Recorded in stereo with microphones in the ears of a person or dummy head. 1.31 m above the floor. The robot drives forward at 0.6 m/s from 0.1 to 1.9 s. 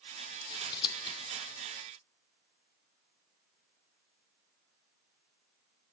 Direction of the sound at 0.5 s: 20° left (ahead or behind).